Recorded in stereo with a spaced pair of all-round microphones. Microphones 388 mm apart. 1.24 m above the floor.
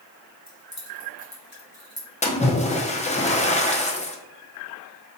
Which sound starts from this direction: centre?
A splash, at 2.2 s.